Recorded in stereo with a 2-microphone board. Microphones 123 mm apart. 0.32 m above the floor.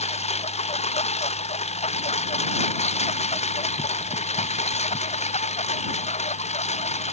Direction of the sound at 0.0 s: 65° left (ahead or behind).